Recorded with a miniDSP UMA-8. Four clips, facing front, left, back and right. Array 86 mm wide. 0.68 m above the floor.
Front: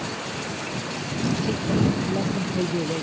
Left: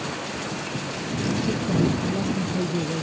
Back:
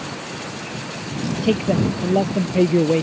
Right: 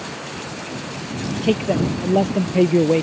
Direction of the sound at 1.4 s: 125° right.